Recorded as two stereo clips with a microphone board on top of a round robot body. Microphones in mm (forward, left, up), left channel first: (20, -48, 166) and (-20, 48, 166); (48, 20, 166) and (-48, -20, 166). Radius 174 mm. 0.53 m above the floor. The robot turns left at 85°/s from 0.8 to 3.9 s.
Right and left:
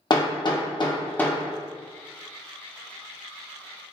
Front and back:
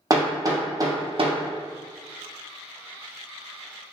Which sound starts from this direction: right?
Hammering, at 0.1 s.